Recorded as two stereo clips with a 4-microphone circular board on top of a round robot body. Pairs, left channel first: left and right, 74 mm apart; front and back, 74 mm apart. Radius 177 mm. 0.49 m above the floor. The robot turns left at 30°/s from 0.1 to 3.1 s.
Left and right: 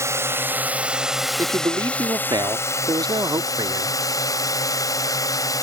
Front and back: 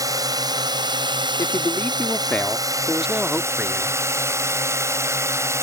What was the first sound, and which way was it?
A drone, 140° right.